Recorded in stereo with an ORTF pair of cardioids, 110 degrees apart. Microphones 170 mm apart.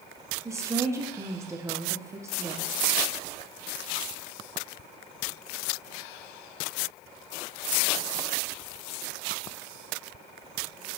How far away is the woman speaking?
About 0.8 m.